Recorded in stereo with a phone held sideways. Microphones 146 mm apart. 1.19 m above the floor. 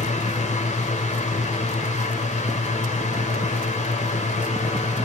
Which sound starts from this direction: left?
A fan, at 0.0 s.